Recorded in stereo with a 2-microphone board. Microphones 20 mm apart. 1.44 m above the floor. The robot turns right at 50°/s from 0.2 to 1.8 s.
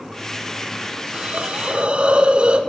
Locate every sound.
1.1 s a hiss: 90° right, 3 m; by 2.6 s 60° right, 3 m